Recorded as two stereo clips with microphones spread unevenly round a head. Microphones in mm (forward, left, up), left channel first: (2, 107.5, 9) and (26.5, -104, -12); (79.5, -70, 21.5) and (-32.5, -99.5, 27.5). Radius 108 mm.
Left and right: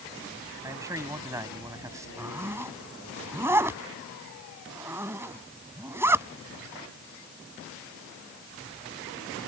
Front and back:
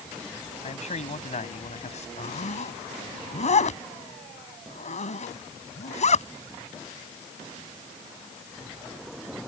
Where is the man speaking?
5° right.